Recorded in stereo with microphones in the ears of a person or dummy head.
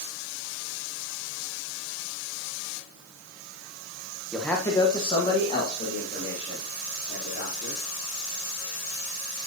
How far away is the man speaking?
About 1.1 m.